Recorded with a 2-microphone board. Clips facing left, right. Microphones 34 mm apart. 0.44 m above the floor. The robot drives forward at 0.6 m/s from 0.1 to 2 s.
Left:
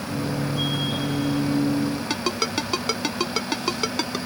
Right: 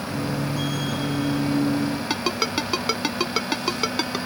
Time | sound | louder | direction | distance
2.1 | a ringtone | right 1 dB | 10° right (ahead or behind) | ?